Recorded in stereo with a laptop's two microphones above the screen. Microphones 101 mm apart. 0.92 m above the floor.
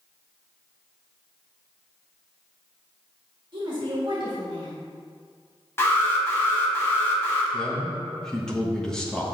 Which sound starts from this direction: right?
A woman speaking, at 3.5 s.